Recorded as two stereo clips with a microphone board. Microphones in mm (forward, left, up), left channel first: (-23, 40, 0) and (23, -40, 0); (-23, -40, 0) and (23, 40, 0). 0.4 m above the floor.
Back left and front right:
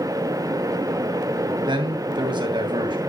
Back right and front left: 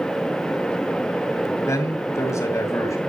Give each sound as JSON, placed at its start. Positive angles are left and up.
{"t": 1.7, "sound": "a man speaking", "azimuth_deg": -70, "distance_m": 2.5}